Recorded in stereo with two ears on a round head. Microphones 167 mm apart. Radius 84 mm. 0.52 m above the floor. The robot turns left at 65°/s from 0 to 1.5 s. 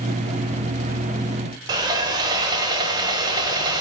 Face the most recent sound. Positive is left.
turn(degrees=-20)  # may be behind; listen again after turning